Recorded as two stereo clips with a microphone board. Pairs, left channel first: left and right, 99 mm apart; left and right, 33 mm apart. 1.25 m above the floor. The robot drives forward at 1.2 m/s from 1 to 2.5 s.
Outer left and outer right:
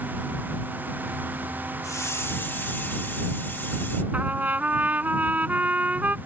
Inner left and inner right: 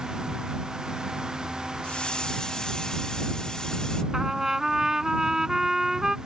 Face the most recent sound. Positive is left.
turn(degrees=-15)  # may be behind; listen again after turning